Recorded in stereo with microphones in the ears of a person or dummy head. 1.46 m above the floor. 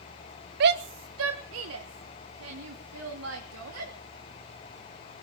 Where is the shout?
55° right (ahead or behind), 0.5 m; by 3.9 s 85° right, 3.5 m.